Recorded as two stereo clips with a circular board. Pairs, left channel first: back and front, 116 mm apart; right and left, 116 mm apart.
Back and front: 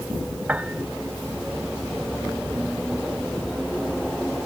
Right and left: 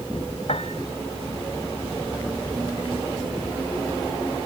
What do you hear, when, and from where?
0.5 s a piano: 75° right